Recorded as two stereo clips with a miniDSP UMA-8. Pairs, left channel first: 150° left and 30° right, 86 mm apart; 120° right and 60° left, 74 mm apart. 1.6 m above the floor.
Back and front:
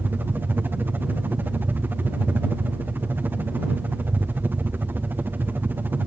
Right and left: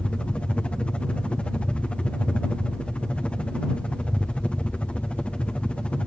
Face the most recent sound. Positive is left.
turn(degrees=-65)